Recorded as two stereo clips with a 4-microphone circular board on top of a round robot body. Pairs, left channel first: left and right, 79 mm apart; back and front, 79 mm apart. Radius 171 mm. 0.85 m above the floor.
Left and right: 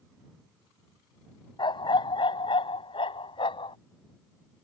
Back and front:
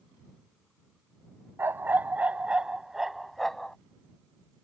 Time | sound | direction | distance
1.6 | a dog barking | 65° left | ?